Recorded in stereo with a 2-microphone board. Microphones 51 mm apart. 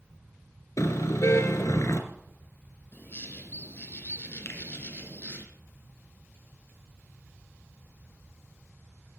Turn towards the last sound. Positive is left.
turn(degrees=55)  # may be behind; listen again after turning